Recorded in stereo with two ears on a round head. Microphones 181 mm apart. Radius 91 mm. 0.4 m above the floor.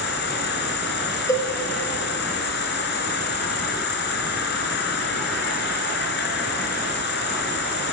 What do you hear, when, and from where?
0.0 s an insect: 55° left (ahead or behind), 3.5 m
1.3 s a cowbell: 15° left (ahead or behind), 5 m